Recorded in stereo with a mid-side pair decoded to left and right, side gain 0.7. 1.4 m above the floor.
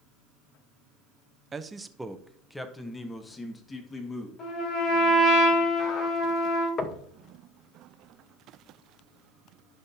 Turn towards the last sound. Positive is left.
turn(degrees=35)